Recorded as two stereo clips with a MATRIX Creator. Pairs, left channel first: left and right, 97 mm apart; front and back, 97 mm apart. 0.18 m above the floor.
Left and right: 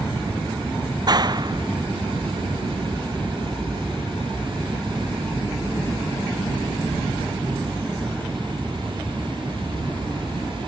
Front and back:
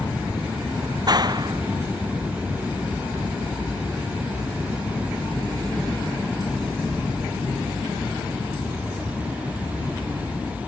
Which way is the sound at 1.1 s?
135° right.